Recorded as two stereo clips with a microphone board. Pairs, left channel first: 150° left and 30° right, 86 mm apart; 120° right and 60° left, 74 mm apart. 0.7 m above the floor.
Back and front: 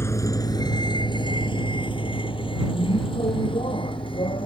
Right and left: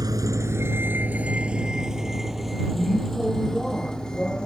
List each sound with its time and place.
0.0 s a vehicle: 95° left; by 4.5 s 160° left